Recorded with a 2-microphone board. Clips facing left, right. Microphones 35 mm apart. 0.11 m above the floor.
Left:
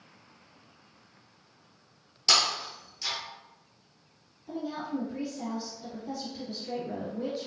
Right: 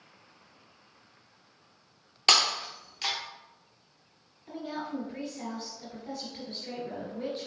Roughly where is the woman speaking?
Right.